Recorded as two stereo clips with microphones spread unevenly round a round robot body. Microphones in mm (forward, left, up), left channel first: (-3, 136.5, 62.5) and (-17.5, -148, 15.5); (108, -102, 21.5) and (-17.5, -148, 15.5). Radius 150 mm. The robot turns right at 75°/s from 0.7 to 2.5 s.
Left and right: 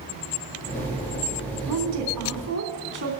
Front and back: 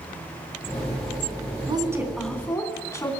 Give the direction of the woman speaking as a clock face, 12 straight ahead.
4 o'clock.